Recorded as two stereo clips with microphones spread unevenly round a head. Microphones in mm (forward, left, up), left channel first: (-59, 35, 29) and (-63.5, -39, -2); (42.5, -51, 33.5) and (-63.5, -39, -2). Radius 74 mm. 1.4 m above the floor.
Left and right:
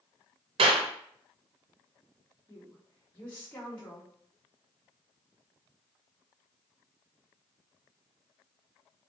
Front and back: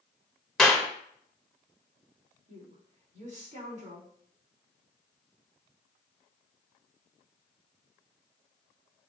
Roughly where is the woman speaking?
Behind.